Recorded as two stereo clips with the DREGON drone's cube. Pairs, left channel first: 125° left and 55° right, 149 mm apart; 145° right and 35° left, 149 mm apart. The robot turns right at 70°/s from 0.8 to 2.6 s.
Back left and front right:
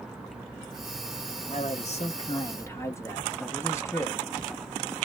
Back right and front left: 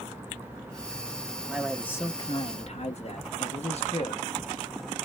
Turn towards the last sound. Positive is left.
turn(degrees=-170)